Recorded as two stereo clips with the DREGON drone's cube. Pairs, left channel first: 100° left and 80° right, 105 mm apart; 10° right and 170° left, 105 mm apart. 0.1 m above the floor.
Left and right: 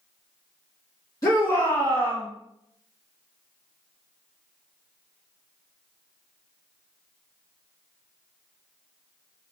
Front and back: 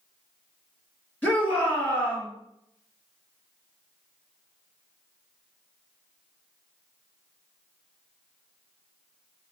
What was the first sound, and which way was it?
A shout, 60° left.